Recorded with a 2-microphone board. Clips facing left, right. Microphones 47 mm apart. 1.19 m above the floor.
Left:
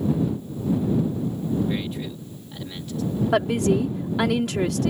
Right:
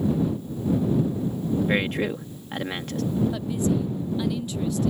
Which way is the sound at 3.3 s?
75° left (ahead or behind).